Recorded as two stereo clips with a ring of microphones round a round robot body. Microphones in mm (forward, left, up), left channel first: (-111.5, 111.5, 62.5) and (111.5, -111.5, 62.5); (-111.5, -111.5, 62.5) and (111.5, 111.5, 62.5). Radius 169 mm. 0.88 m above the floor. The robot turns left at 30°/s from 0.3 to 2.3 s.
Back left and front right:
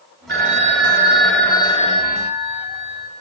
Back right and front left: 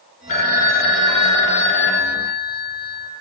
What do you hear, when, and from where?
0.3 s a phone ringing: 105° right, 1.9 m; by 3.1 s 165° right, 1.9 m